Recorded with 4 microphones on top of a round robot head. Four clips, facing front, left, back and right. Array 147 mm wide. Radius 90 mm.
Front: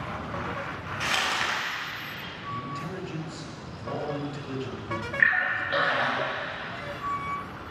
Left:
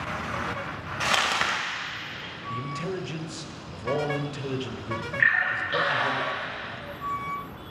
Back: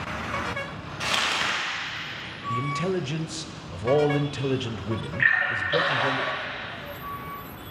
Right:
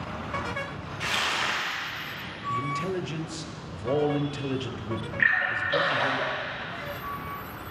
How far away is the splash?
About 4.5 m.